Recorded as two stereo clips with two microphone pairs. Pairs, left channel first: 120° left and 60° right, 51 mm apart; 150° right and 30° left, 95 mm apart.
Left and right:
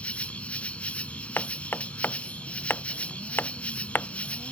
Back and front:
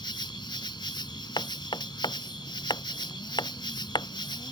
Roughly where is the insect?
Behind.